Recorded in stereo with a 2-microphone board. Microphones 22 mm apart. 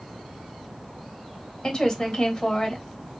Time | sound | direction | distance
1.6 | a woman speaking | 30° left (ahead or behind) | 1.6 m